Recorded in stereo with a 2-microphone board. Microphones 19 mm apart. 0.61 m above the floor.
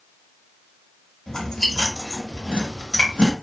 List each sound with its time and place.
1.3 s chewing: 35° left (ahead or behind), 1.0 m